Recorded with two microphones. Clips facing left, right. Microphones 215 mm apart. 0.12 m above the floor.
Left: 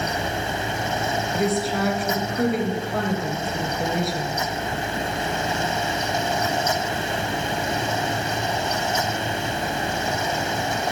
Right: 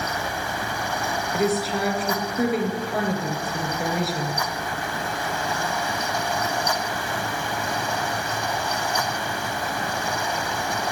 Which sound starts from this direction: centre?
A woman speaking, at 1.3 s.